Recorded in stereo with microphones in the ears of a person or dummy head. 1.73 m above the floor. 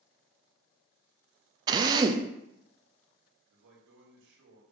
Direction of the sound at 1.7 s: 20° right (ahead or behind).